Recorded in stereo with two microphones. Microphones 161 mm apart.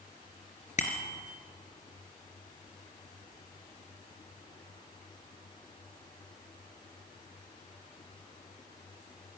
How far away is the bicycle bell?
About 3 m.